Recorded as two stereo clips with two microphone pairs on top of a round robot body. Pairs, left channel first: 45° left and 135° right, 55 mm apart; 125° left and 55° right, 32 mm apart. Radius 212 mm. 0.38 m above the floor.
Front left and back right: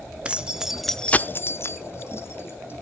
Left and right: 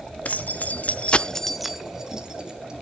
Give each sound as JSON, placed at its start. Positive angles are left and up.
{"t": 0.2, "sound": "keys jangling", "azimuth_deg": 155, "distance_m": 1.2}